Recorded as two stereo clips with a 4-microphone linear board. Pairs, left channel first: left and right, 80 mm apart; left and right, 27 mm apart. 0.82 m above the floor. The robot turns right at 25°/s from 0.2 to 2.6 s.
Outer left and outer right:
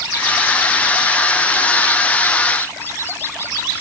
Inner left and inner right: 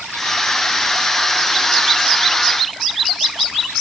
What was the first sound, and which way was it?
Only background noise.